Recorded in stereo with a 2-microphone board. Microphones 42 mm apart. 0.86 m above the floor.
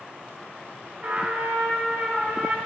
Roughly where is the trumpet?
Right.